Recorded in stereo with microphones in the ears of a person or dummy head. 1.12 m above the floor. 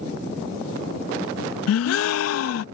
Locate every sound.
1.7 s a gasp: 85° left